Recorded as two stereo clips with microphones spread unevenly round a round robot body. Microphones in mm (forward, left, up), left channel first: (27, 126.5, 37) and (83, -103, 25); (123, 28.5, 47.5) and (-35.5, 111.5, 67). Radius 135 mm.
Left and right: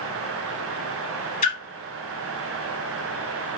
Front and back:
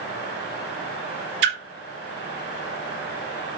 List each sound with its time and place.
1.4 s a splash: 170° left, 0.9 m